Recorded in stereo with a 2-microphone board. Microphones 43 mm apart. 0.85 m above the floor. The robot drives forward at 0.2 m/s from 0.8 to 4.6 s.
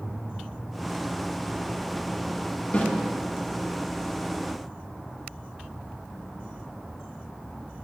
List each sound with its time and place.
2.7 s a snare drum: 35° left (ahead or behind), 0.9 m